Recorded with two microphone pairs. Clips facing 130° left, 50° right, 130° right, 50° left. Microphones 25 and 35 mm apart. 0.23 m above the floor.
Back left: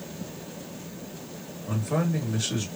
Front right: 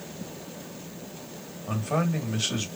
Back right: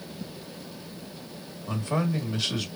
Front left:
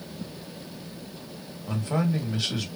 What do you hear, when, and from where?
1.7 s a man speaking: 35° right, 1.6 m